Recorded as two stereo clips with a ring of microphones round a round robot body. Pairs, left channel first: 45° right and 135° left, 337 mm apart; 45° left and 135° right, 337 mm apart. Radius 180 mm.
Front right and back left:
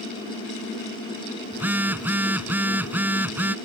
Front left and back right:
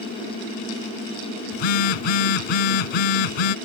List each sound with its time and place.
1.5 s a phone buzzing: 50° left